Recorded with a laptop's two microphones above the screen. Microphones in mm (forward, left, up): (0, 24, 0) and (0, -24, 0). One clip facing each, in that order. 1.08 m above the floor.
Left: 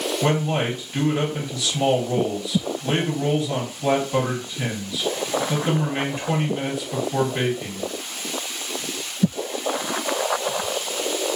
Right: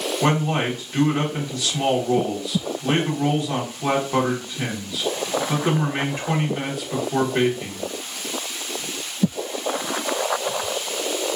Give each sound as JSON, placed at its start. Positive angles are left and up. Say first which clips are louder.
{"t": 0.2, "sound": "a man speaking", "louder": "right 2 dB", "side_deg": -45, "distance_m": 1.3}